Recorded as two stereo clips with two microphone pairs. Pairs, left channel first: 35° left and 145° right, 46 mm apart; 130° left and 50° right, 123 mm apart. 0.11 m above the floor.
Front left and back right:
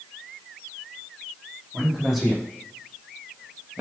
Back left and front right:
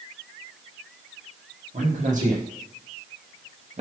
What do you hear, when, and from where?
1.7 s a man speaking: 55° right, 6 m; by 3.8 s 75° right, 4.5 m